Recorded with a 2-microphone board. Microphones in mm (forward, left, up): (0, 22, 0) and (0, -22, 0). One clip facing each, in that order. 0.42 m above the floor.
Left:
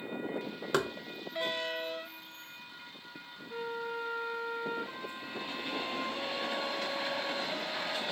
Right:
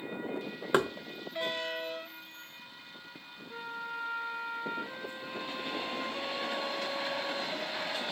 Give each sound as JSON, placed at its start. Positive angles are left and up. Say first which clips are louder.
{"t": 0.7, "sound": "knocking", "louder": "right 3 dB", "side_deg": -20, "distance_m": 0.5}
{"t": 3.5, "sound": "a flute", "louder": "left 2 dB", "side_deg": -10, "distance_m": 0.8}